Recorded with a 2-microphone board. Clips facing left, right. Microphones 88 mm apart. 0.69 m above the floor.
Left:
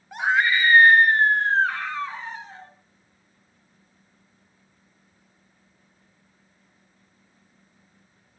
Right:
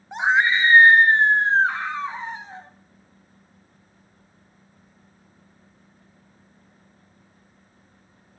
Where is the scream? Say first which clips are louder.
Right 2 dB; 20° right (ahead or behind), 0.9 m.